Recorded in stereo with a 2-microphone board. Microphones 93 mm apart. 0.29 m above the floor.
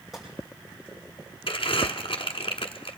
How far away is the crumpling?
About 1.2 m.